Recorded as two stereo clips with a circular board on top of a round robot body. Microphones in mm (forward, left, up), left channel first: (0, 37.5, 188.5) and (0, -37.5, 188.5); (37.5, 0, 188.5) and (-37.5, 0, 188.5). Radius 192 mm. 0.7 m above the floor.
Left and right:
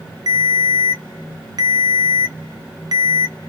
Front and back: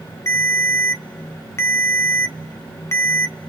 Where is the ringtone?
55° right, 0.7 m.